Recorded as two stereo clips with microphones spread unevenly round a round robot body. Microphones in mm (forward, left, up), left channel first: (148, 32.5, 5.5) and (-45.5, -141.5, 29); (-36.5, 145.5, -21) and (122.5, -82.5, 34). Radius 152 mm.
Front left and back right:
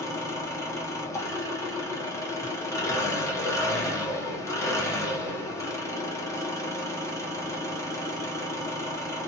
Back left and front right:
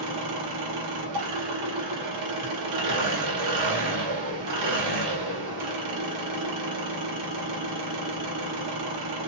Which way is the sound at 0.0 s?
40° right.